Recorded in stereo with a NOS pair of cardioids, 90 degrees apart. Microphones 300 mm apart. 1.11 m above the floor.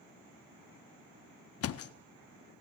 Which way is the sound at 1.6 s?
55° left.